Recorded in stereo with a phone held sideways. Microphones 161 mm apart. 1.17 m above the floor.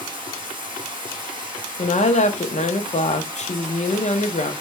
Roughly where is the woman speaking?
Left.